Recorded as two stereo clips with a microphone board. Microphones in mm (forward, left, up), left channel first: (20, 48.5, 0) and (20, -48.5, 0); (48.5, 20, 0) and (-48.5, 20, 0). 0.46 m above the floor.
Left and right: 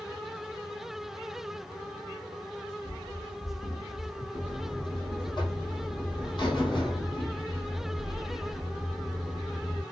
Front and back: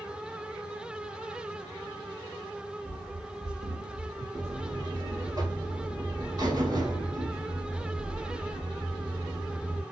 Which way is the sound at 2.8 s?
110° left.